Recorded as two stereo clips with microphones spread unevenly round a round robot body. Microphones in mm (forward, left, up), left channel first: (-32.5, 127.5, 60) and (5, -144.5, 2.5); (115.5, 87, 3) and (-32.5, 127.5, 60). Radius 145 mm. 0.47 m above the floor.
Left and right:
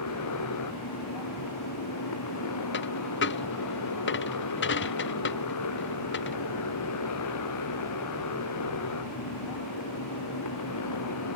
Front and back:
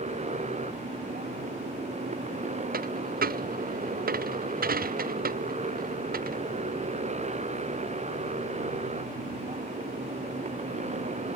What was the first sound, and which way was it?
A motorcycle, 125° left.